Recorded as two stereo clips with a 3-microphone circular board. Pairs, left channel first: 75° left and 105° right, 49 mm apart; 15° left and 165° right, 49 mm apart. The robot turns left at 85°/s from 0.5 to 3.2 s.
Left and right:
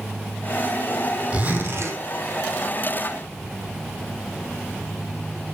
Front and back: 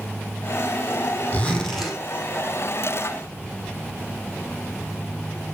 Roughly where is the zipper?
Ahead right.